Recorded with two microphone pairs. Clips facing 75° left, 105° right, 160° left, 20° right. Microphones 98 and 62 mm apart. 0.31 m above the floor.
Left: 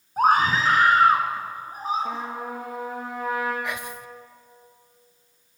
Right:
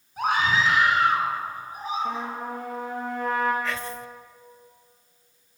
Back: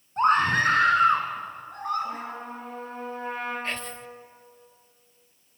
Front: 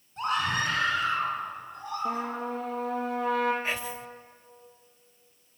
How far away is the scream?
About 3 m.